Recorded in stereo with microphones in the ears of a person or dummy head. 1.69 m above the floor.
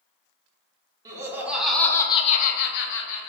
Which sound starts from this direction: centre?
Laughter, at 1.1 s.